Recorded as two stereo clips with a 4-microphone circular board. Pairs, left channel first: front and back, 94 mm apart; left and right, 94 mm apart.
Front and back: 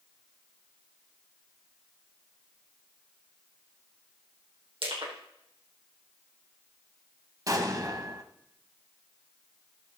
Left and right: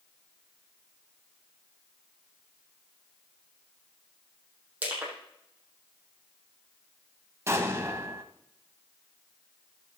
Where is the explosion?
145° right, 1.3 m.